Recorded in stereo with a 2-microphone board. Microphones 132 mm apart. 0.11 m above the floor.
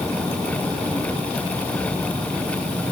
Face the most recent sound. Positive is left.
No sound to turn to.